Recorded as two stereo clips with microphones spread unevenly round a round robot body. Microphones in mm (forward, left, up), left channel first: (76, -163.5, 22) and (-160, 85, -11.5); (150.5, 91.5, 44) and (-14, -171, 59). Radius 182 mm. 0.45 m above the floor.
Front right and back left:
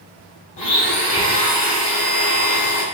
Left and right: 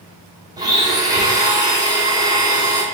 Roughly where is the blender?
Ahead right.